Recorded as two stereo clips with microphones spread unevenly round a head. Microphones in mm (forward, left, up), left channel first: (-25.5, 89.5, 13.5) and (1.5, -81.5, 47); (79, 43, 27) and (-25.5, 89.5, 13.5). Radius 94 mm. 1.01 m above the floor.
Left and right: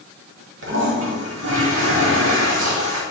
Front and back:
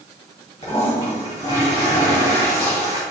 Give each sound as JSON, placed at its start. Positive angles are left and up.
{"t": 0.6, "sound": "a toilet flushing", "azimuth_deg": -80, "distance_m": 1.6}